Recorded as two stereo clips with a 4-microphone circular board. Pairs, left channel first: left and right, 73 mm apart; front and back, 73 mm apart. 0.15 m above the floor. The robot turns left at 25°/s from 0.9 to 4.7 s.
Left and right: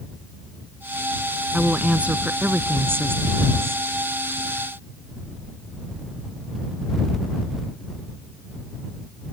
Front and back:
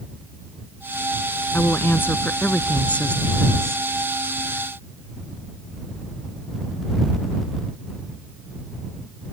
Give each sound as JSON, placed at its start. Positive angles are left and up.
{"t": 1.5, "sound": "a woman speaking", "azimuth_deg": -20}